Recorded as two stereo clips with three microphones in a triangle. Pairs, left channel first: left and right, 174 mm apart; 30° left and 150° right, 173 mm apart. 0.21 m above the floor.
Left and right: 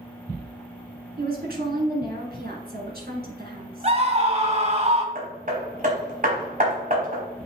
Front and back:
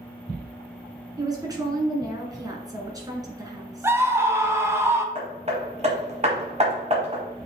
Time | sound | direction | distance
1.2 | a woman speaking | 85° right | 2 m
3.8 | a scream | 85° right | 1.2 m
5.2 | hammering | 110° right | 1.6 m